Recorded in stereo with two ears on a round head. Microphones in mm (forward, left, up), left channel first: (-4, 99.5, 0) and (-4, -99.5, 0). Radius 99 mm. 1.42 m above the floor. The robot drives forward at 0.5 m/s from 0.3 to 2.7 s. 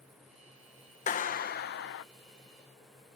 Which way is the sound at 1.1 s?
35° left (ahead or behind).